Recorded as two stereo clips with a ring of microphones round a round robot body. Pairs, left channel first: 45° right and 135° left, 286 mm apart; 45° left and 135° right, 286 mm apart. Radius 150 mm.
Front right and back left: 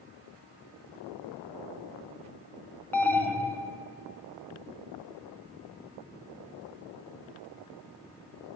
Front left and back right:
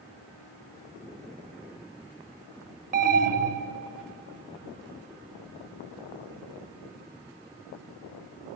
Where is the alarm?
125° right, 0.9 m.